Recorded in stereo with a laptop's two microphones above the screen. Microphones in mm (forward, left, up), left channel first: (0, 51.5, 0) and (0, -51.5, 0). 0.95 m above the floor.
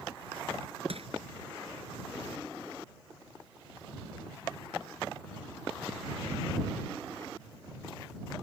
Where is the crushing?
70° right (ahead or behind).